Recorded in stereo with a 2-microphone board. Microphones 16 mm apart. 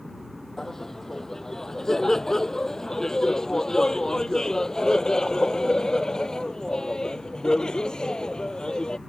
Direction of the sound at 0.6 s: 30° left (ahead or behind).